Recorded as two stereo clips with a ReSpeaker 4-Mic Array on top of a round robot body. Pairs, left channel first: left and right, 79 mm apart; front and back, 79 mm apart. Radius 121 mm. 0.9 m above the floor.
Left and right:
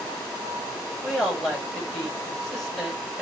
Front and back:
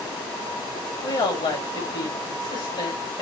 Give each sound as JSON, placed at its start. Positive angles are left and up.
{"t": 1.0, "sound": "a woman speaking", "azimuth_deg": 5, "distance_m": 6.0}